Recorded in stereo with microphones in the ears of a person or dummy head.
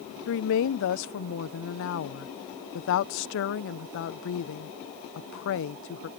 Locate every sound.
0.3 s a woman speaking: 60° left (ahead or behind)